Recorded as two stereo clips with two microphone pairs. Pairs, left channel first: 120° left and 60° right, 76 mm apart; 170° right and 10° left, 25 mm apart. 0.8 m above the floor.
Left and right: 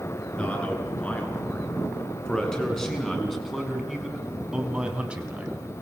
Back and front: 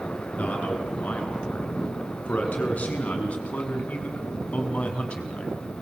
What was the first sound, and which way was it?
A man speaking, 165° right.